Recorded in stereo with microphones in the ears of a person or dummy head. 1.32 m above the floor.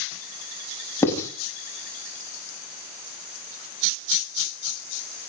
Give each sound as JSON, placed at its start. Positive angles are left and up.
{"t": 1.0, "sound": "writing", "side_deg": 15, "distance_m": 6.5}